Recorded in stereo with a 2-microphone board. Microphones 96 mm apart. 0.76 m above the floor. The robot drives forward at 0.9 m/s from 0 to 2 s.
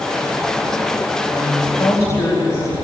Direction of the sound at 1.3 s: 35° left (ahead or behind).